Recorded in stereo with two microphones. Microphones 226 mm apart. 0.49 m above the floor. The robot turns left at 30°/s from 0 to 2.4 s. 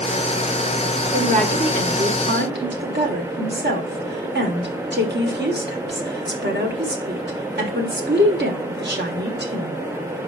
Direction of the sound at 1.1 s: 30° right (ahead or behind).